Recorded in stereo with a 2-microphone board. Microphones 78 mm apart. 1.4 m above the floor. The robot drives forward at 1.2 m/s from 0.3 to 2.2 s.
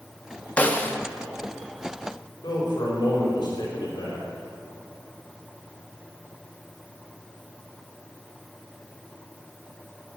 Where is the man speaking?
65° left (ahead or behind), 5.5 m.